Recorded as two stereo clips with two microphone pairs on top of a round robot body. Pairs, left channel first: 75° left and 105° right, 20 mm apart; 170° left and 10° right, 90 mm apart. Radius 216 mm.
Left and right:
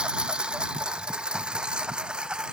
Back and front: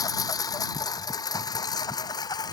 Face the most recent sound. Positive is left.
turn(degrees=-145)